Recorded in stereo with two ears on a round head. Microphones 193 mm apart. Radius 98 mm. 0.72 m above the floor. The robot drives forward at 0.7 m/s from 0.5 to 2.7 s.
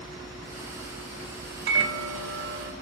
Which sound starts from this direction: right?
A microwave, at 1.7 s.